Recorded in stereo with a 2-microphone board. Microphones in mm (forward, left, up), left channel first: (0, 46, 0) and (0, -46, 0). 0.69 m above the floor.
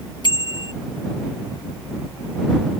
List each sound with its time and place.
0.2 s a bicycle bell: 55° left (ahead or behind)